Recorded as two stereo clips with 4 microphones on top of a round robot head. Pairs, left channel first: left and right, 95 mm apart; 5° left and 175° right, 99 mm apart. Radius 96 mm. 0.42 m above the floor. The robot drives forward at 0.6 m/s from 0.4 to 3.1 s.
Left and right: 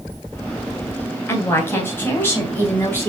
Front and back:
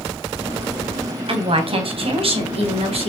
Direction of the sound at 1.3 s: 160° left.